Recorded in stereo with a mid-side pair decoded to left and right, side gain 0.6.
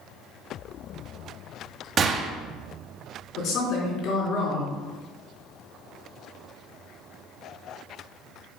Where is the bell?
I don't hear a bell.